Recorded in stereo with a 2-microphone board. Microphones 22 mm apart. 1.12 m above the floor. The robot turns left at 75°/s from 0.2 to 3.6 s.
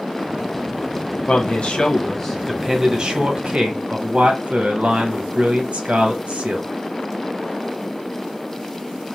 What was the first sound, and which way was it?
A man speaking, 95° left.